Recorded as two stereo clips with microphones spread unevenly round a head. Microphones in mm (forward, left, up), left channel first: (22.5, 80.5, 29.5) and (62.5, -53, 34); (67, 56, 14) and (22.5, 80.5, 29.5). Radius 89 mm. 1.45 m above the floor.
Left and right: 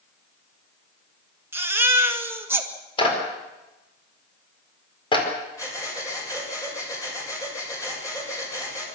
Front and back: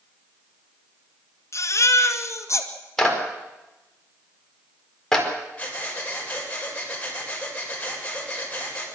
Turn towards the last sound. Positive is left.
turn(degrees=40)